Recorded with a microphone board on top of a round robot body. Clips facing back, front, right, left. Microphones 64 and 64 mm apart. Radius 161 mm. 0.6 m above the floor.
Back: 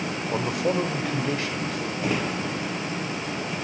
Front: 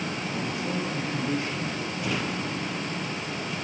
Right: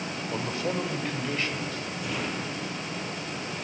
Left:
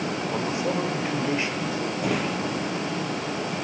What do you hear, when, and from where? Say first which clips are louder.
0.3 s a man speaking: back 9 dB, left 2 dB; 160° left, 3 m; by 1.9 s 165° left, 4.5 m
2.0 s a drawer: back 3 dB, left 5 dB; 125° left, 4 m